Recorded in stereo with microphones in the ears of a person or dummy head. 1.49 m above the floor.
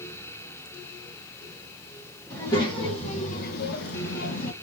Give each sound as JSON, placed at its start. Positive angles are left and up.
{"t": 2.3, "sound": "a child speaking", "side_deg": 20, "distance_m": 1.6}